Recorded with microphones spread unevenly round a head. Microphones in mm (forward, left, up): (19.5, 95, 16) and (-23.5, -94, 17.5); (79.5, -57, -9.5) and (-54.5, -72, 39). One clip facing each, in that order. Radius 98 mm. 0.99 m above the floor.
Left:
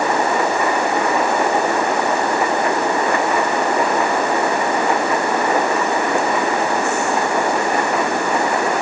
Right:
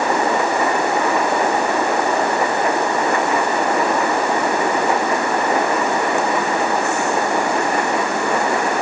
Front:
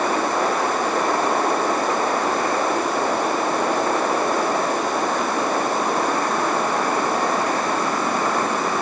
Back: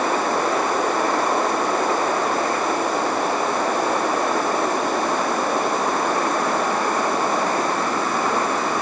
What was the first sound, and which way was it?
Only background noise.